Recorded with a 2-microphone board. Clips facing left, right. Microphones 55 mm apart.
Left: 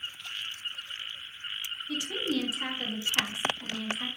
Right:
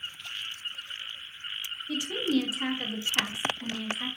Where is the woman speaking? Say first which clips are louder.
Right 4 dB; 15° right (ahead or behind), 0.6 m.